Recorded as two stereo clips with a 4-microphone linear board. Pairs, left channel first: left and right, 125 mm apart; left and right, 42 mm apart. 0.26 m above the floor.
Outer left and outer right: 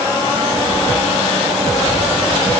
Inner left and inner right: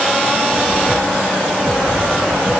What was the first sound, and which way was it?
Only background noise.